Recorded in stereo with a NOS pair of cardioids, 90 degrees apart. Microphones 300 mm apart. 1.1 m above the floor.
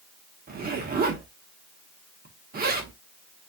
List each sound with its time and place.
0.5 s a zipper: 35° right, 1.2 m